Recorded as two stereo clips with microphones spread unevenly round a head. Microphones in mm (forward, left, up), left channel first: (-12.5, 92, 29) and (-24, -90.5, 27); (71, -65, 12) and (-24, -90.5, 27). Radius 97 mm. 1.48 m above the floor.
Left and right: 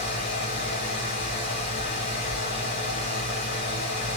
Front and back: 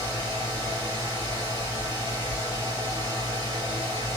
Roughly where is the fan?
Behind left.